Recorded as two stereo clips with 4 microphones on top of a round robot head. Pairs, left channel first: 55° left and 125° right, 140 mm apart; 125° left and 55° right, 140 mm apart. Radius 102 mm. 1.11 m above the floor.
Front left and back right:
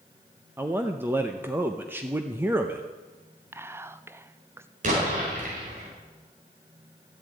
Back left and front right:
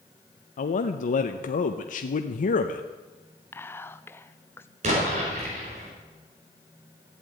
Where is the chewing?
No chewing in this recording.